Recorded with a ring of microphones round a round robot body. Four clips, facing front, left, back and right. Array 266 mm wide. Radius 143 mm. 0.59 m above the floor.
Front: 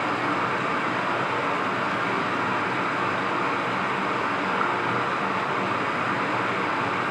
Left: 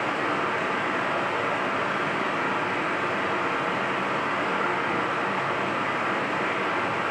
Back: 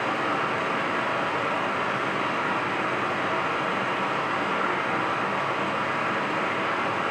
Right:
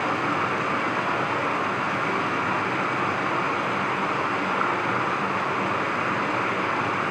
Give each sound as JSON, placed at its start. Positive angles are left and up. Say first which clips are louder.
{"t": 0.0, "sound": "running water", "louder": "right 2 dB, front 1 dB", "azimuth_deg": -55, "distance_m": 1.1}